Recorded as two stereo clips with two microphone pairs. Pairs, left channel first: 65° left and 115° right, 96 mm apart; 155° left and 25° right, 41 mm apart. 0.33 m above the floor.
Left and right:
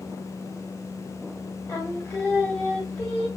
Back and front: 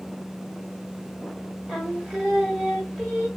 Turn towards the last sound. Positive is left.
turn(degrees=40)